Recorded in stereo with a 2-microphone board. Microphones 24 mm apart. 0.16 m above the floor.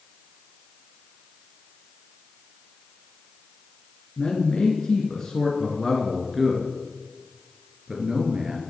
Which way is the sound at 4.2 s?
35° left (ahead or behind).